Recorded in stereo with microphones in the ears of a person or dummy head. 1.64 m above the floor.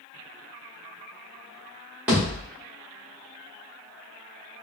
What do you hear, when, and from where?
2.1 s a thud: 10° right (ahead or behind), 1.4 m